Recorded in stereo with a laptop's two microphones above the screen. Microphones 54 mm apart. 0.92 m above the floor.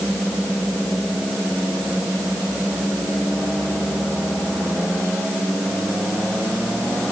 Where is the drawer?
No drawer in this recording.